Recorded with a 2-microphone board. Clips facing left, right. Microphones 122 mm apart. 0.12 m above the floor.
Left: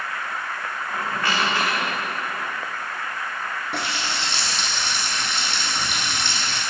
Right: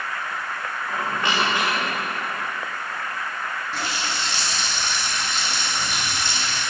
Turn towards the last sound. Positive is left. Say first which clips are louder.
# left 1 dB
turn(degrees=65)  # may be behind; listen again after turning